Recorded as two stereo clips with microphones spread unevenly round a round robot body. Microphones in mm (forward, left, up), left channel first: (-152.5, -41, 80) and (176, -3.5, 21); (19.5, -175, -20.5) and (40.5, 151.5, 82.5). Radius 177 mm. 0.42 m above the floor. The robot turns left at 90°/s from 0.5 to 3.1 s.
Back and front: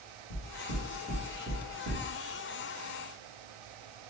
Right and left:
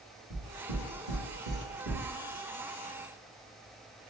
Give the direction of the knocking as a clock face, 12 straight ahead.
7 o'clock.